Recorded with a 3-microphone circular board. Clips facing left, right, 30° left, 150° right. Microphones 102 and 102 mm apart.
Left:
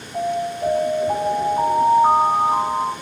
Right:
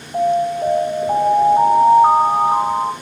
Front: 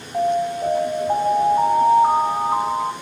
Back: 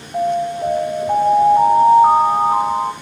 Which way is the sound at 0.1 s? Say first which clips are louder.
Right 6 dB, back 1 dB; 135° right.